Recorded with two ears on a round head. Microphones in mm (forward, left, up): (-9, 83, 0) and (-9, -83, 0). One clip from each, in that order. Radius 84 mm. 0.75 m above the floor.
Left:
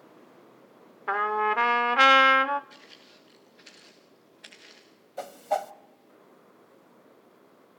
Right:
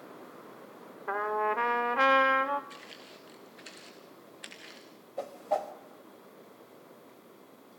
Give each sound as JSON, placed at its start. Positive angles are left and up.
{"t": 1.1, "sound": "a trumpet", "side_deg": 60, "distance_m": 0.6}
{"t": 2.7, "sound": "footsteps", "side_deg": -60, "distance_m": 4.5}
{"t": 5.2, "sound": "a whoosh", "side_deg": 40, "distance_m": 1.0}